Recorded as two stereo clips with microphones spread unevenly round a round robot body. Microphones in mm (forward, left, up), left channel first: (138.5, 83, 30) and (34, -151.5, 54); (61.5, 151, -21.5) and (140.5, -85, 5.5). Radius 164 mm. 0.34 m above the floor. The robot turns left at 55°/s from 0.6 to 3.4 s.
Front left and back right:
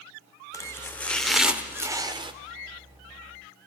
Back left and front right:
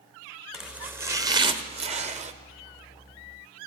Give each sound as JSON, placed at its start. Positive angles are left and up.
{"t": 0.5, "sound": "chopping", "azimuth_deg": 30, "distance_m": 1.2}